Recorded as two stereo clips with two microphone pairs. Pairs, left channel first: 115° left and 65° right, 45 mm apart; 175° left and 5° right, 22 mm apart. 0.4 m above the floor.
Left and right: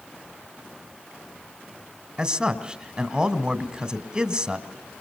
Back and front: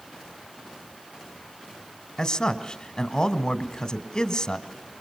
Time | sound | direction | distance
2.2 | a man speaking | 130° right | 1.6 m